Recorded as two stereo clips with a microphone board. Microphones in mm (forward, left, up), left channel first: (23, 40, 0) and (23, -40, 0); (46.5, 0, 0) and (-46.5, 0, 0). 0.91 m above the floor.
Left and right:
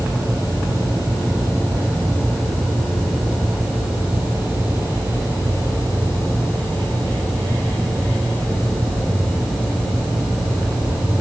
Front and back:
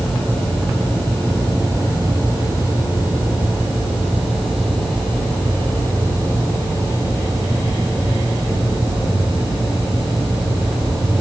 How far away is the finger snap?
No finger snap in this recording.